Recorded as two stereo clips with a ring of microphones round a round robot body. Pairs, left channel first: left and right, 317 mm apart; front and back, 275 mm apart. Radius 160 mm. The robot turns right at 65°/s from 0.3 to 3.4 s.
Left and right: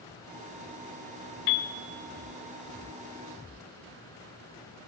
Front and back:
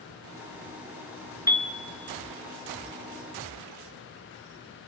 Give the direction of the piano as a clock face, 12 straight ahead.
9 o'clock.